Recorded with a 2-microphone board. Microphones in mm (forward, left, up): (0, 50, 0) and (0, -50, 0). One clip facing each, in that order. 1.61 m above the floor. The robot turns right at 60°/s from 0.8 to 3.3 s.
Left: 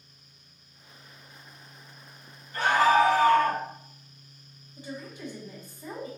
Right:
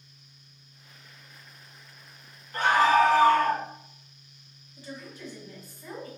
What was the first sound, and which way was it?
A scream, 135° right.